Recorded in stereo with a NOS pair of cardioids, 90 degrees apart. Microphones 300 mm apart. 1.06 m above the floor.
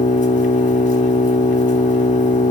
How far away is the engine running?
About 0.8 m.